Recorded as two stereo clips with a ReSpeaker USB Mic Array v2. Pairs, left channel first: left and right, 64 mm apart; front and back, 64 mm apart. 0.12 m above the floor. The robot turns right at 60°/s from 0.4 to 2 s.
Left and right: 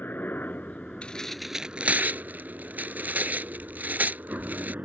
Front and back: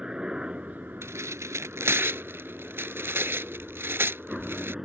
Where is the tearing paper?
155° left; by 4.8 s 145° right.